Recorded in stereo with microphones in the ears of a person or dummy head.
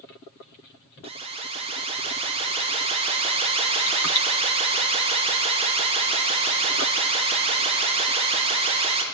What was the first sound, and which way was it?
An alarm, 30° right (ahead or behind).